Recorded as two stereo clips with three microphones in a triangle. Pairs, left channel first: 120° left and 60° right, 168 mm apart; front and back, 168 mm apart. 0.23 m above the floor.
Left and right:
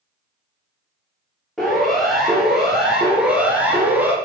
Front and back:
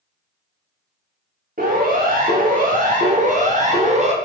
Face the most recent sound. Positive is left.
turn(degrees=-135)